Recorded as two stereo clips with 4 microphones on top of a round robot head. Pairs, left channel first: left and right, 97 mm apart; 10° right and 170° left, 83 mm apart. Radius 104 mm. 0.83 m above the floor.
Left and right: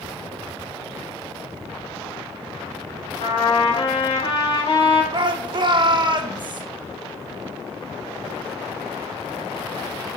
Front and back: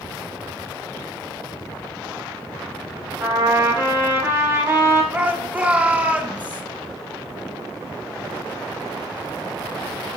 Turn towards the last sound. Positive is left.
turn(degrees=-120)